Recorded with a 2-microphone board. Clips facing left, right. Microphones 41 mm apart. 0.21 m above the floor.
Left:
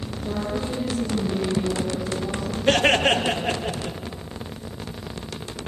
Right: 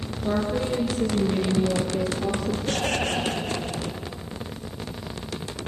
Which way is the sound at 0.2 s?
55° right (ahead or behind).